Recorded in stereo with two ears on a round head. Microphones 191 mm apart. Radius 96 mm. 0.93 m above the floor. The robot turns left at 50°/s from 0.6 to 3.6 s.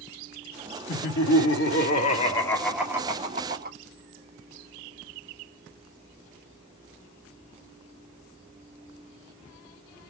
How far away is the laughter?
About 1.8 m.